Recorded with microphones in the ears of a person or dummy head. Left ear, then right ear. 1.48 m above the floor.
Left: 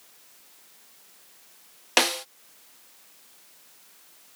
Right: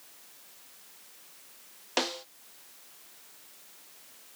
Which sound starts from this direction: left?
A snare drum, at 2.0 s.